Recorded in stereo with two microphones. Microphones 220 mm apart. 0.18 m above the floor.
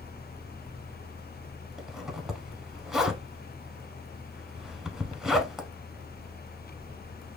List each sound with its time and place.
1.8 s a zipper: centre (ahead or behind), 0.6 m